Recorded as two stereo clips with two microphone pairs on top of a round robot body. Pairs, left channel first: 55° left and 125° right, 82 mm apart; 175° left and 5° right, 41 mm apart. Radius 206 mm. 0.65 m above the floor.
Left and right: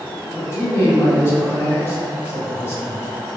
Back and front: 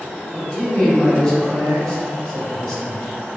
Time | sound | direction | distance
0.3 | a man speaking | 105° left | 1.5 m